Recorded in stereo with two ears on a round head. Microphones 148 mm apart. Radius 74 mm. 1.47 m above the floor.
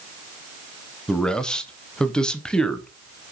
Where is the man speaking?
5° left (ahead or behind), 0.7 m.